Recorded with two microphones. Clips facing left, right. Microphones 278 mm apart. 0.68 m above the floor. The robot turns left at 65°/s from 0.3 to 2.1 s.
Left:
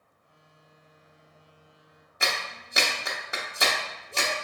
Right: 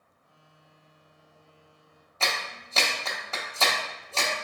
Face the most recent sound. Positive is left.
turn(degrees=15)  # may be behind; listen again after turning